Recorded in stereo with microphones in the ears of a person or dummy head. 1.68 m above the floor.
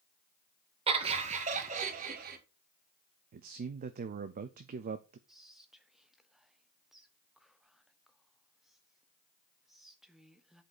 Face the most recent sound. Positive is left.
turn(degrees=0)  # may be behind; listen again after turning